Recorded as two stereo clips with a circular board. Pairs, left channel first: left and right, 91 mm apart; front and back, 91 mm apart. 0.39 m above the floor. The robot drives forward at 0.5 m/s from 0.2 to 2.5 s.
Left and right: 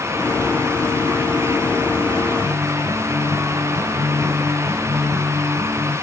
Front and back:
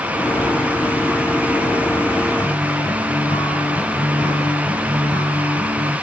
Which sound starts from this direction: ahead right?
A guitar, at 2.4 s.